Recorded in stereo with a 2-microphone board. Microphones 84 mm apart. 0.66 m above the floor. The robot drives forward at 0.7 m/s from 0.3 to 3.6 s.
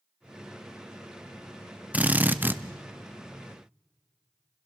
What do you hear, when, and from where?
1.9 s a drill: 20° right (ahead or behind), 0.7 m; by 2.6 s 25° right (ahead or behind), 0.6 m